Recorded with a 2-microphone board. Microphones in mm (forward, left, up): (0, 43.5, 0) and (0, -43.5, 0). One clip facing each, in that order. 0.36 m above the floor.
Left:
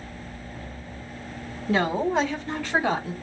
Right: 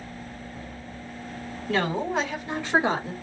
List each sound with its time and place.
1.7 s a woman speaking: 20° left (ahead or behind), 1.7 m; by 3.1 s 40° right (ahead or behind), 1.8 m